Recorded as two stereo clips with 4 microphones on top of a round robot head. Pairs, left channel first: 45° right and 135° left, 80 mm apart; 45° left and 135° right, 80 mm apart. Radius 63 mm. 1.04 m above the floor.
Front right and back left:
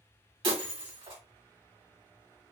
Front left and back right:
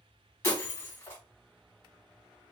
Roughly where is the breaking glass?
Left.